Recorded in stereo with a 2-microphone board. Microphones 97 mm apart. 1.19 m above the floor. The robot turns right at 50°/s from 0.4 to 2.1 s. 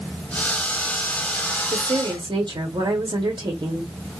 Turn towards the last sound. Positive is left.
turn(degrees=-50)  # may be behind; listen again after turning